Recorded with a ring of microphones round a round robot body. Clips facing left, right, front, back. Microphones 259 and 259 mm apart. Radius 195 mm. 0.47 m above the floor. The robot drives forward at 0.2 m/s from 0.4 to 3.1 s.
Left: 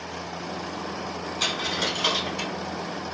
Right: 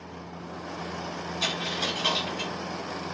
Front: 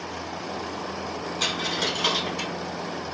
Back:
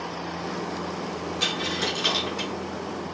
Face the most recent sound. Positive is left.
turn(degrees=100)